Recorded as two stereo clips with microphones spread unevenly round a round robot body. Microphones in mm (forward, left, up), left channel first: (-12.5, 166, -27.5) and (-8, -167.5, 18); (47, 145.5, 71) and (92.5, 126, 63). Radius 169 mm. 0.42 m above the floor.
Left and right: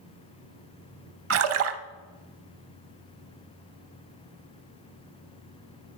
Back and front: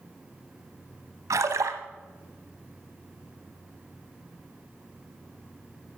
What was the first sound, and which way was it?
A splash, 40° right.